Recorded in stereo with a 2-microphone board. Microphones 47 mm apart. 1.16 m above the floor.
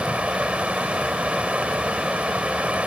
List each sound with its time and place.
0.0 s running water: 25° right (ahead or behind)